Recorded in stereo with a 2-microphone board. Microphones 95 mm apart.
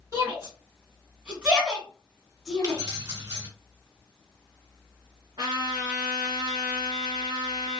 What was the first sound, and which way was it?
A shout, 30° right (ahead or behind).